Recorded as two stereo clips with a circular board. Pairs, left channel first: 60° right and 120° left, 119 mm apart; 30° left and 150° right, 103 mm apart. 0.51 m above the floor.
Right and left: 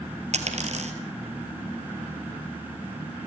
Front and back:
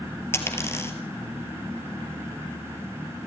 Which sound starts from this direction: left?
A dropped coin, at 0.3 s.